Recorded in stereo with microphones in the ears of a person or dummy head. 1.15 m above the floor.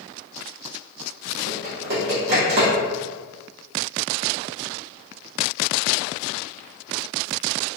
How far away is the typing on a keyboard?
About 1.1 m.